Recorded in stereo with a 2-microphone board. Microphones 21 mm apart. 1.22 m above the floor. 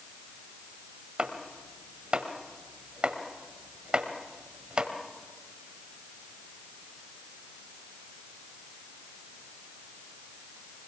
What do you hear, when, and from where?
1.2 s chopping: 65° right (ahead or behind), 1.8 m